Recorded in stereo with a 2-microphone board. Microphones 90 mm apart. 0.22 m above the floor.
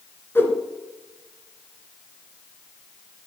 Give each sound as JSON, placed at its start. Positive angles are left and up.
{"t": 0.3, "sound": "a whoosh", "side_deg": 25, "distance_m": 1.7}